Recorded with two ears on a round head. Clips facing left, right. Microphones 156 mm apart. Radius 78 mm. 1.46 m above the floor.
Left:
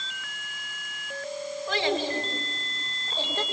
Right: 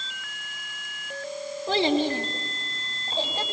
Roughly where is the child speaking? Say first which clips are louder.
Right 5 dB; right.